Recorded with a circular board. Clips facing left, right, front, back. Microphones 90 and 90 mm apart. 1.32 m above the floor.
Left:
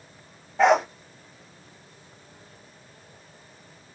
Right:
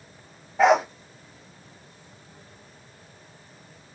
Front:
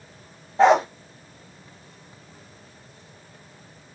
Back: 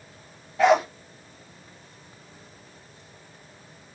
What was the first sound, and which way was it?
A dog barking, 5° right.